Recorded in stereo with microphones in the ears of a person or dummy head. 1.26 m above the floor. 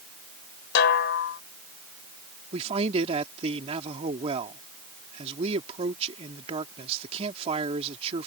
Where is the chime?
I don't hear a chime.